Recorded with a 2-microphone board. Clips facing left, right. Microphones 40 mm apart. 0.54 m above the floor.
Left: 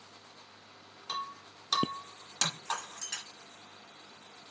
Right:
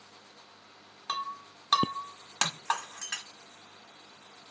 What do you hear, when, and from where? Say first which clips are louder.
1.1 s breaking glass: right 4 dB; 35° right (ahead or behind), 1.3 m